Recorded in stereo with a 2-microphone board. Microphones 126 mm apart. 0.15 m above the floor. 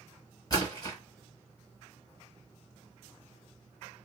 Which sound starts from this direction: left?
A splash, at 0.5 s.